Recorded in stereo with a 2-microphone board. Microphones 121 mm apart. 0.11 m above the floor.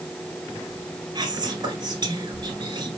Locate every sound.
1.1 s whispering: 35° right (ahead or behind), 1.3 m